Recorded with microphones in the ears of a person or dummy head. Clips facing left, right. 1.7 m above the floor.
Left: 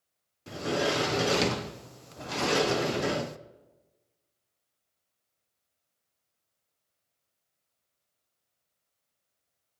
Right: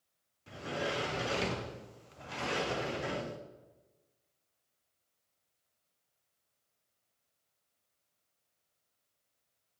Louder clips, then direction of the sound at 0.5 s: Left 8 dB; 65° left (ahead or behind).